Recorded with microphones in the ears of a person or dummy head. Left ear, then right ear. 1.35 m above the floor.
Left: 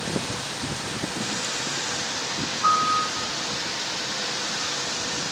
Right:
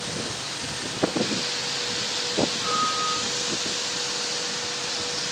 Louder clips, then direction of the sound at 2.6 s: Left 3 dB; 65° left (ahead or behind).